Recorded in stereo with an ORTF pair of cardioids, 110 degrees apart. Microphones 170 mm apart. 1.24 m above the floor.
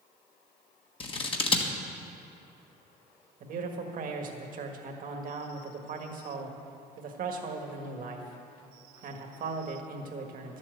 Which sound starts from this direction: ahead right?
A man speaking, at 3.4 s.